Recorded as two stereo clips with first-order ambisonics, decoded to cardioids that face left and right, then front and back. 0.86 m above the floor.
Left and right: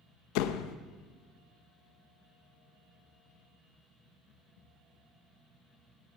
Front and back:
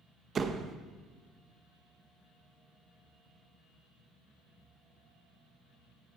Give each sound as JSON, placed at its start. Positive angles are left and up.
{"t": 0.3, "sound": "a door slam", "azimuth_deg": 110, "distance_m": 0.5}